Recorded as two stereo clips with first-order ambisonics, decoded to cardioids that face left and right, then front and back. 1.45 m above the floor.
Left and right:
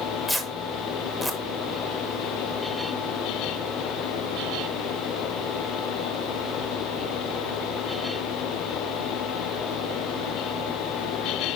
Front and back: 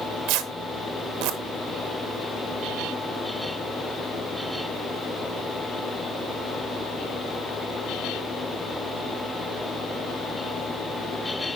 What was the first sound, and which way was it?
Tearing paper, 175° left.